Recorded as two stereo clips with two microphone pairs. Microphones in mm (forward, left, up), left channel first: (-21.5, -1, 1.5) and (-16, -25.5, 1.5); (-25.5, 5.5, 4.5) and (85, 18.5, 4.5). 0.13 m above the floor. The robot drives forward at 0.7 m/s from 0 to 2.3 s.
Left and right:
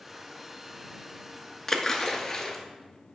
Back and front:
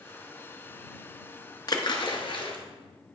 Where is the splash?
170° left, 0.8 m; by 2.6 s 175° left, 1.1 m.